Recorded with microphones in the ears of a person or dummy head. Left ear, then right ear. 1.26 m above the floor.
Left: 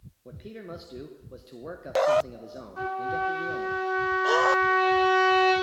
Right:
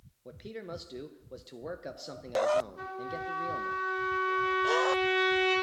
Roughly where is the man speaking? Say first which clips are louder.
Left 1 dB; right.